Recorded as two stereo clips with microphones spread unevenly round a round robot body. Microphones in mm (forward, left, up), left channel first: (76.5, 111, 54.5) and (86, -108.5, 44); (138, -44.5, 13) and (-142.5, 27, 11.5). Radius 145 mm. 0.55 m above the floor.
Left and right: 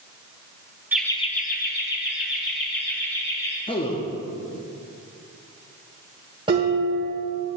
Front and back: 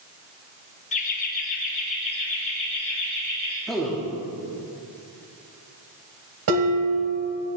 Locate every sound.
0.9 s laughter: 25° right, 0.6 m; by 3.6 s 55° left, 4 m
3.7 s a man speaking: 75° left, 0.9 m
6.5 s dishes clattering: 160° right, 2.0 m